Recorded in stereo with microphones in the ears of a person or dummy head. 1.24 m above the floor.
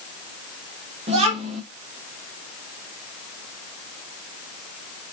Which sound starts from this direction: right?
A child speaking, at 1.1 s.